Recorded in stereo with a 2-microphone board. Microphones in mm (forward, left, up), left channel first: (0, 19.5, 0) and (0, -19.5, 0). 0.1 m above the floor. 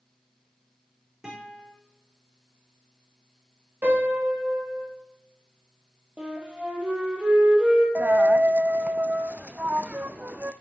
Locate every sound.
1.2 s a guitar: 15° right (ahead or behind), 4.5 m
3.8 s a piano: 50° right (ahead or behind), 4.5 m
6.2 s a flute: 25° right (ahead or behind), 3.5 m
8.0 s a dropped coin: 45° right (ahead or behind), 0.6 m